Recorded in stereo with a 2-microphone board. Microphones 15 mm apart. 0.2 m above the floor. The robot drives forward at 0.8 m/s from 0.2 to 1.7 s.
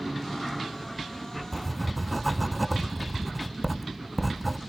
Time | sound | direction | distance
1.5 | writing | 5° left (ahead or behind) | 0.5 m